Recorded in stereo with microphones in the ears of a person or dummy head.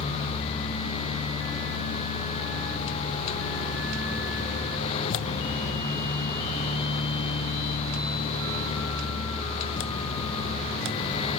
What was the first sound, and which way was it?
Only background noise.